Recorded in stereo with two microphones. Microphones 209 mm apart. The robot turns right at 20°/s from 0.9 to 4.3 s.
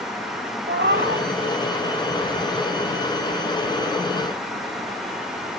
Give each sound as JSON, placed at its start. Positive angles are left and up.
{"t": 0.7, "sound": "a cat meowing", "side_deg": -60, "distance_m": 1.5}